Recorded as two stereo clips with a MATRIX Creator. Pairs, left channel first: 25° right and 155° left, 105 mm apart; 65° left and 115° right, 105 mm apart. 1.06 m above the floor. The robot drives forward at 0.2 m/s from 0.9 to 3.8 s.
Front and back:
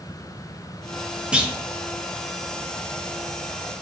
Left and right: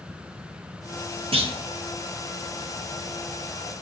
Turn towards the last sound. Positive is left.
turn(degrees=-150)